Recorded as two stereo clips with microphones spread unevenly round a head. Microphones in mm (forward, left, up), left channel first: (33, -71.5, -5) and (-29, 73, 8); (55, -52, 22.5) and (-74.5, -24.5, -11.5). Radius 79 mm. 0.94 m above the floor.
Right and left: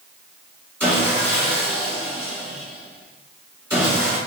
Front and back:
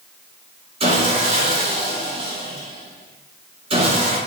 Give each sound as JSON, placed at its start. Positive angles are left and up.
{"t": 0.8, "sound": "sawing", "azimuth_deg": -170, "distance_m": 1.8}